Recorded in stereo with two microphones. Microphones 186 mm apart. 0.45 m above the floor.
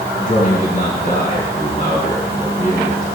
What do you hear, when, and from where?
0.2 s a man speaking: 50° left (ahead or behind), 3.5 m